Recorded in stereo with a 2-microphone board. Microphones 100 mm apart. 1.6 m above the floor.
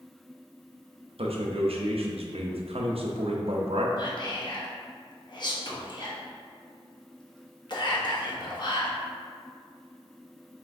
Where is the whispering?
45° left (ahead or behind), 0.9 m.